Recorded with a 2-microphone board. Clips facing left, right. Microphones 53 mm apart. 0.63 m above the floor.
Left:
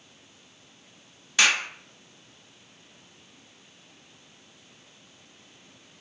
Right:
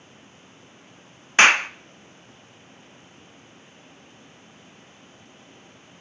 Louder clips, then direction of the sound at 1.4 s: Right 7 dB; 40° right (ahead or behind).